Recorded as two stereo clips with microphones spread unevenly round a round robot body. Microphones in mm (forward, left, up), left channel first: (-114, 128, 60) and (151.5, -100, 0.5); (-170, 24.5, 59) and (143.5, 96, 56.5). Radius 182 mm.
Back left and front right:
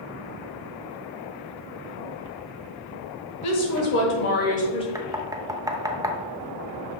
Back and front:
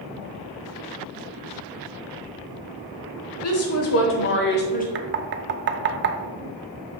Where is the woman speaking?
Straight behind, 1.4 m; by 4.8 s 140° right, 1.0 m.